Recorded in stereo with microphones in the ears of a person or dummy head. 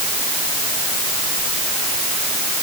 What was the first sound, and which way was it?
Only background noise.